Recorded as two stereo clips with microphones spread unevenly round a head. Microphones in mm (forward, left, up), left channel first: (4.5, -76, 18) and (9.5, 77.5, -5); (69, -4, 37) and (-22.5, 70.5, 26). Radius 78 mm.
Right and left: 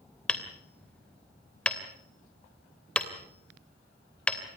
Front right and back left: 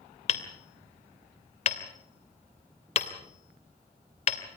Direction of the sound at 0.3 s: 10° right.